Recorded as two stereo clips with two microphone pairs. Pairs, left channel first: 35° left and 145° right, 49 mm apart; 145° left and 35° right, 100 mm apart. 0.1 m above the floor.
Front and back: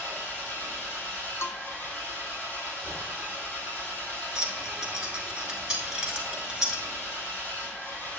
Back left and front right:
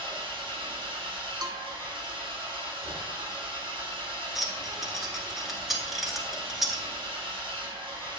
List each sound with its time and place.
0.0 s an engine running: 5° right, 2.5 m
1.4 s a bell: 15° left, 0.6 m
4.3 s keys jangling: 115° right, 1.0 m